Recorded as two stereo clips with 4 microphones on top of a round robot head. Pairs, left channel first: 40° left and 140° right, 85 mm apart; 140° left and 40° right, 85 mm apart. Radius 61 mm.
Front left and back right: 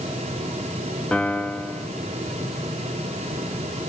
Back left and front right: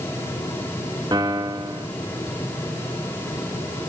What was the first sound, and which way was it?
A piano, 30° right.